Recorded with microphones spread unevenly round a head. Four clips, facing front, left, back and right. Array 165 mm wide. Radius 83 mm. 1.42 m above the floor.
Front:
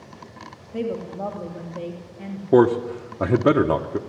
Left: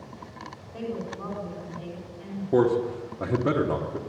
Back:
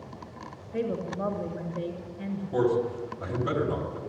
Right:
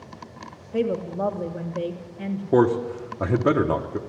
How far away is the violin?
I don't hear a violin.